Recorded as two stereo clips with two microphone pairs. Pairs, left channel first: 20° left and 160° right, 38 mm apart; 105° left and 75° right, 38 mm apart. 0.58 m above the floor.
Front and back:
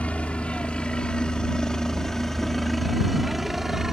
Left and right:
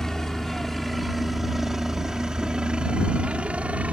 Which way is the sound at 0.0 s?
35° left.